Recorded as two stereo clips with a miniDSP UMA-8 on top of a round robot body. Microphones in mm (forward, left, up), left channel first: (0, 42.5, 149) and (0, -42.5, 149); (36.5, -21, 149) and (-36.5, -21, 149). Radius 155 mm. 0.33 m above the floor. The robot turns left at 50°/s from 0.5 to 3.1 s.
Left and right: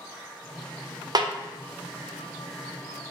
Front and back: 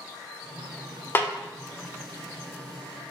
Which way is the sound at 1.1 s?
60° right.